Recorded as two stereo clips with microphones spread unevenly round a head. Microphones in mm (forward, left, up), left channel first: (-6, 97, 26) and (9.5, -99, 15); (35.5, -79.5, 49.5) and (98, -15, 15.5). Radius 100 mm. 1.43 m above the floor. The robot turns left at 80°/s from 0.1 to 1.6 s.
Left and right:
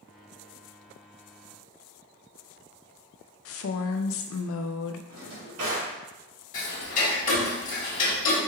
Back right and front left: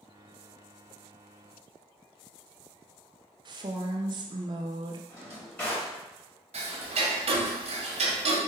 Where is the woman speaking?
80° left, 0.5 m.